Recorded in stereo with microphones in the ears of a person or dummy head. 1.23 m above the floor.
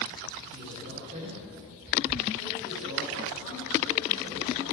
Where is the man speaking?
30° right (ahead or behind), 3.5 m.